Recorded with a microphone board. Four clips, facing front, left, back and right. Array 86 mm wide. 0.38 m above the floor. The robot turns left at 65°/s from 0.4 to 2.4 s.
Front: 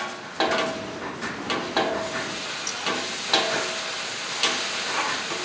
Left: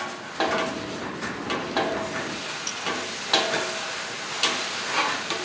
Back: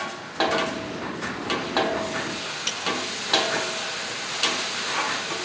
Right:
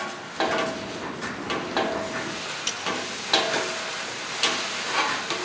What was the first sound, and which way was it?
A snare drum, 150° right.